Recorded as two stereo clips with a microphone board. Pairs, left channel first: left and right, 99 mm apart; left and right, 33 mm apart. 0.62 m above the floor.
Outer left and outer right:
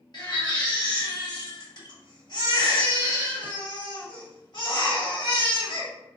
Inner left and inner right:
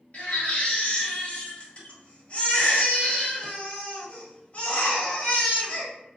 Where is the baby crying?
45° left (ahead or behind), 1.0 m.